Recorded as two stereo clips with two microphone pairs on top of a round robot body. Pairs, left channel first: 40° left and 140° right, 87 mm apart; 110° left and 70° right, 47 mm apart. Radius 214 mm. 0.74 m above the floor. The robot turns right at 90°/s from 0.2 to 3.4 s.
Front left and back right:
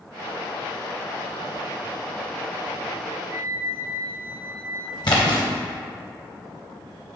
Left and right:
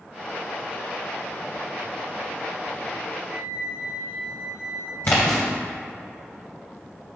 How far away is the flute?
About 0.9 m.